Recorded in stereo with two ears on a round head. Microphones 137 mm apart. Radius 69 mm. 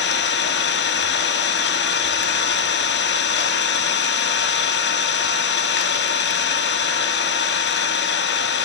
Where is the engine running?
80° left, 0.8 m.